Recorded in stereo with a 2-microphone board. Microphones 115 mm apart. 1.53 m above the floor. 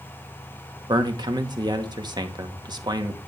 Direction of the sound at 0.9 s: 40° right (ahead or behind).